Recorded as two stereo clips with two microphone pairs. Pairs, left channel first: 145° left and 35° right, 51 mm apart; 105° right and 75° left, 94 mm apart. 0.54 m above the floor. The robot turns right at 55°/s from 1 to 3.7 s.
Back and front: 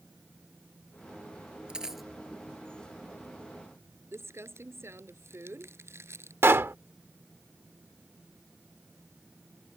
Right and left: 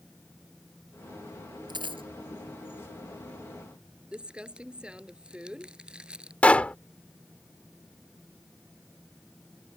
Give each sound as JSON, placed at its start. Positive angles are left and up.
{"t": 1.7, "sound": "a dropped coin", "azimuth_deg": 35}
{"t": 4.1, "sound": "crumpling", "azimuth_deg": -5}
{"t": 6.4, "sound": "a pop", "azimuth_deg": -35}